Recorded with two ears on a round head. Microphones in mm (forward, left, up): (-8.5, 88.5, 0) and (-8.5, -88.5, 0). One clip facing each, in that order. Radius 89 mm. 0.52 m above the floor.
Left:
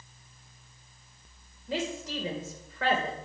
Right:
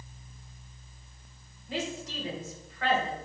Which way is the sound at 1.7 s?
60° left (ahead or behind).